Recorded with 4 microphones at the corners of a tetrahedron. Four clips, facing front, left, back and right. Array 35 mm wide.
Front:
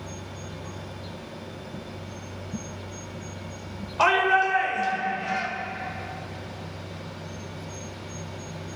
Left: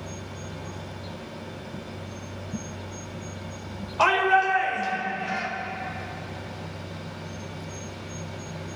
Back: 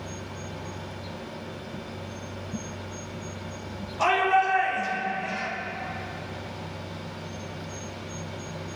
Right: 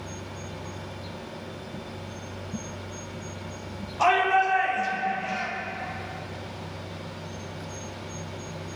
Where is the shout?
45° left, 4.5 m; by 5.5 s 35° left, 3.5 m.